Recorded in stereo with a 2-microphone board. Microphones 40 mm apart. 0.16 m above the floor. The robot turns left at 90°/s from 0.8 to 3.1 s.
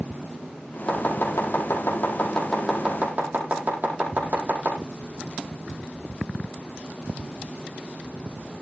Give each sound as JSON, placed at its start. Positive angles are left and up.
{"t": 0.9, "sound": "chopping", "side_deg": 25, "distance_m": 6.5}